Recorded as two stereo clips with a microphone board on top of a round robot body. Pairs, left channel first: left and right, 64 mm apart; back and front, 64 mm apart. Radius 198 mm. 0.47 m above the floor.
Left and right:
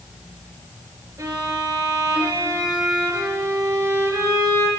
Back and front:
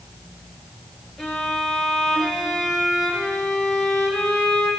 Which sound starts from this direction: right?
A violin, at 1.2 s.